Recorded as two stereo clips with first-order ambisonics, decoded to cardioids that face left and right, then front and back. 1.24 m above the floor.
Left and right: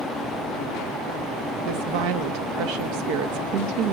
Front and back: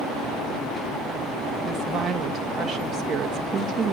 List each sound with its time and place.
1.6 s a woman speaking: 100° right, 1.8 m